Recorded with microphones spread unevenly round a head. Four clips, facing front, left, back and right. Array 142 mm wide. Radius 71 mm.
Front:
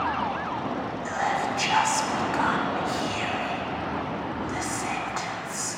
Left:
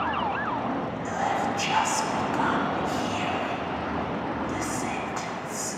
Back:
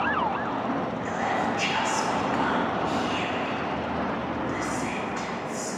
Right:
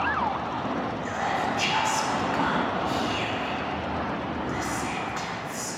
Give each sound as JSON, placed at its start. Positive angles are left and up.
{"t": 1.1, "sound": "whispering", "azimuth_deg": 30, "distance_m": 0.8}